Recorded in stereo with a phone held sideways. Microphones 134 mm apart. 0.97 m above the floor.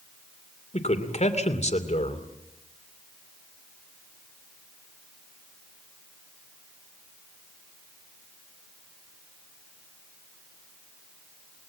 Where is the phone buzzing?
No phone buzzing in this recording.